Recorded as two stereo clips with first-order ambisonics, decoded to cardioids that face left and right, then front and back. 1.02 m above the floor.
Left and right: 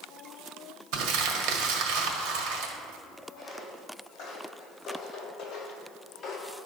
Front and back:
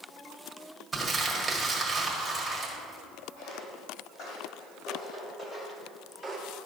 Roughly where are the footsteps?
Ahead left.